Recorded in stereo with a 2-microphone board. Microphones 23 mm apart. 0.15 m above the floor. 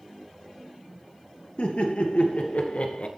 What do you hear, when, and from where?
1.6 s laughter: 60° left (ahead or behind), 2.5 m; by 3.1 s 55° left (ahead or behind), 2 m